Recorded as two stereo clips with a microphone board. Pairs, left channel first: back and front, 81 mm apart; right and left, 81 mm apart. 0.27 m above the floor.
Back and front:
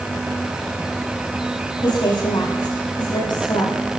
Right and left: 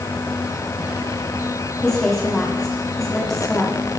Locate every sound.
1.8 s a woman speaking: 175° right, 9 m